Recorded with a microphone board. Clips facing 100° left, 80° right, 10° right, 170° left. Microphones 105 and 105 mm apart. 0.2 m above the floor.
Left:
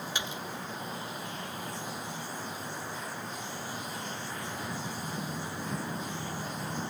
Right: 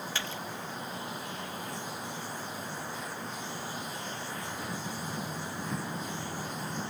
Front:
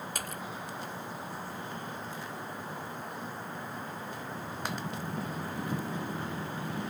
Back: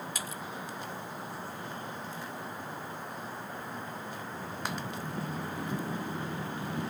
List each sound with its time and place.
0.1 s a splash: 30° left